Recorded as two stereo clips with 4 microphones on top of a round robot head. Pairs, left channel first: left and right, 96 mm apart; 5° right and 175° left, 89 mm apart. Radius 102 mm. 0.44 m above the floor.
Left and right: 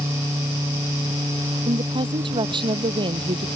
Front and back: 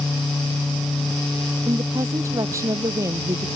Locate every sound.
1.7 s a woman speaking: 125° right